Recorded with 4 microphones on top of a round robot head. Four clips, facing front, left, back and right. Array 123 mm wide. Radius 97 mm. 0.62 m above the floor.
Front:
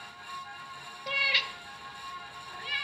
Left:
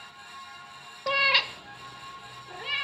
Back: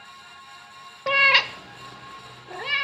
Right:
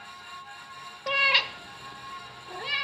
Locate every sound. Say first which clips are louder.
1.1 s a cat meowing: left 1 dB, back 12 dB; 165° left, 0.5 m; by 2.8 s 170° right, 1.4 m